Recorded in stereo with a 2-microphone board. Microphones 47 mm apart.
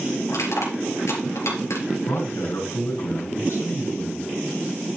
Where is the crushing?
85° left, 4 m.